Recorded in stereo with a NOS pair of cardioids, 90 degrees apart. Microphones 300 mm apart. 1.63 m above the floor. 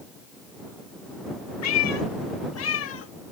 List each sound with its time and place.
1.6 s a cat meowing: 65° left; by 3.1 s 50° left